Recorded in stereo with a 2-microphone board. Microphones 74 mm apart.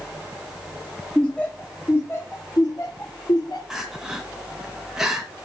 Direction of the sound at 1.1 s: 5° left (ahead or behind).